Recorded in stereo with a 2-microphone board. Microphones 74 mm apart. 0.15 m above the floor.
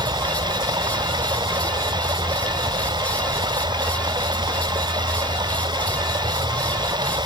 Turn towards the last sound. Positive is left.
turn(degrees=-85)